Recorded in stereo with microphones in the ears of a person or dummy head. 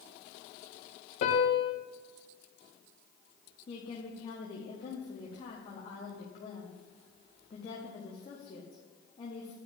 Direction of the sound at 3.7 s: 25° left (ahead or behind).